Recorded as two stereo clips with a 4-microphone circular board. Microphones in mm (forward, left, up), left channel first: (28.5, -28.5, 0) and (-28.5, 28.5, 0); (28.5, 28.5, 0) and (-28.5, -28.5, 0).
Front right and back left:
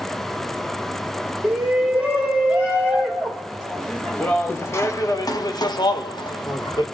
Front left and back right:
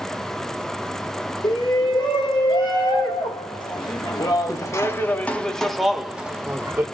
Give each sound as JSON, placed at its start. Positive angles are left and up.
{"t": 1.4, "sound": "a shout", "azimuth_deg": 60, "distance_m": 2.0}